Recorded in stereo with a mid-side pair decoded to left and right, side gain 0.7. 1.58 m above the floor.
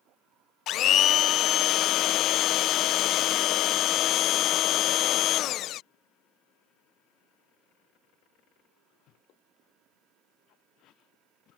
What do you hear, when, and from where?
0.7 s a blender: 50° left